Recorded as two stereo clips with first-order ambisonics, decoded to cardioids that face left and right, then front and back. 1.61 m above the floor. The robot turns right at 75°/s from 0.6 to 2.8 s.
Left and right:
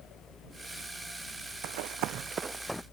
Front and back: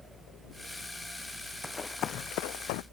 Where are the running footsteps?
85° right; by 2.8 s 10° left.